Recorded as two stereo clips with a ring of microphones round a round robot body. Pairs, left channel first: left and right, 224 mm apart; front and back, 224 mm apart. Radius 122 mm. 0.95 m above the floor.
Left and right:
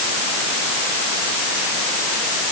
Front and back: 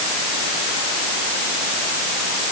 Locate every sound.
Only background noise.